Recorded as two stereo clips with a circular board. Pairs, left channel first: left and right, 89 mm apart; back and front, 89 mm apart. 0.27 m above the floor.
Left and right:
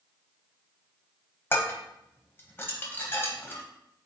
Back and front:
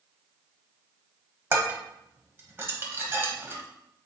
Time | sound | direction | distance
1.5 | dishes clattering | 45° left | 0.9 m